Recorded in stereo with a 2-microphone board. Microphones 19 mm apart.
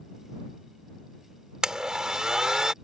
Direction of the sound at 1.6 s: 45° right (ahead or behind).